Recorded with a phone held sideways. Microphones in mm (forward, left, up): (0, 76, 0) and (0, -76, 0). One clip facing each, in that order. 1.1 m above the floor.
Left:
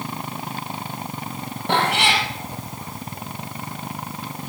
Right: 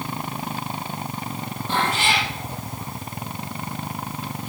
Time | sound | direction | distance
1.7 | a cat meowing | 70° left (ahead or behind) | 6 m